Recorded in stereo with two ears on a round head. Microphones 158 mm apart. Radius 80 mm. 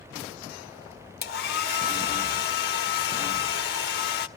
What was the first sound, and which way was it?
A hair dryer, 60° left (ahead or behind).